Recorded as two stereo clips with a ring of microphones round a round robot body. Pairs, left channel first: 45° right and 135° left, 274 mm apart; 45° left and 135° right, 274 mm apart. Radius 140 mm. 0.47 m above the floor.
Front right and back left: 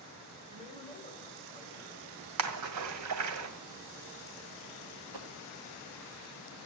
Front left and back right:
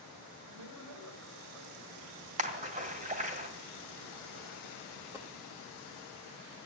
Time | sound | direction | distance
0.5 | a man speaking | 115° right | 2.5 m
2.4 | a splash | 160° left | 1.9 m
5.1 | a dropped coin | 145° left | 3 m